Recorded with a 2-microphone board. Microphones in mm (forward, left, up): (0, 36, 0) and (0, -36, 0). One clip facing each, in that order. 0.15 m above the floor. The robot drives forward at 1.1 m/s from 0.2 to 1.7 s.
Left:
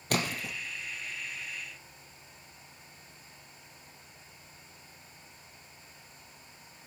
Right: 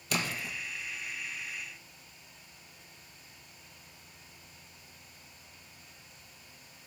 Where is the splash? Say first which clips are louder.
Left 2 dB; 50° left (ahead or behind), 1.6 m; by 0.5 s 60° left (ahead or behind), 1.4 m.